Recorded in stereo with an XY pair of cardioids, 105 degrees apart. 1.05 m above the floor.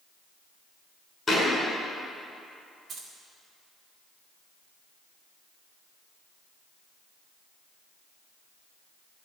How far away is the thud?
About 5 m.